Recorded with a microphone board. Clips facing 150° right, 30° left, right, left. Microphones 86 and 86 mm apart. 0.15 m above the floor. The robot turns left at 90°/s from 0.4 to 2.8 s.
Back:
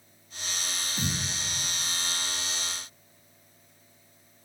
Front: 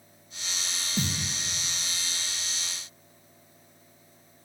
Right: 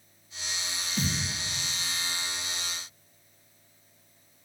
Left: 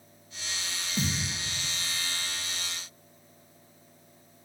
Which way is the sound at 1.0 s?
30° left.